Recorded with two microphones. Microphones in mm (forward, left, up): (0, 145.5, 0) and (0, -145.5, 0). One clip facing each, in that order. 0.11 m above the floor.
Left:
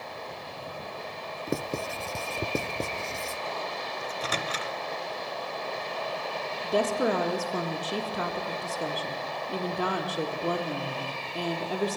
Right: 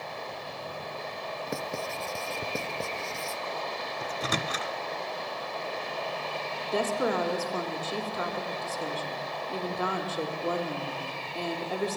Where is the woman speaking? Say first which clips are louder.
Left 2 dB; 40° left (ahead or behind), 3 m.